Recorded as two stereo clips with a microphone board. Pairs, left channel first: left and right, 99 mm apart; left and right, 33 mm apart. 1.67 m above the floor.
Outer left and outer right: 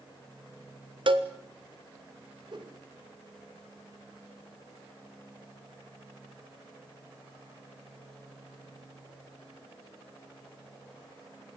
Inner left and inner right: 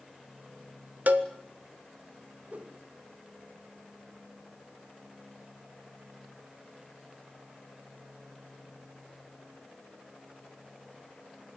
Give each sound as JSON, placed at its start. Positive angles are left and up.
{"t": 1.1, "sound": "a cowbell", "side_deg": -60, "distance_m": 1.4}
{"t": 2.5, "sound": "a whoosh", "side_deg": -50, "distance_m": 2.5}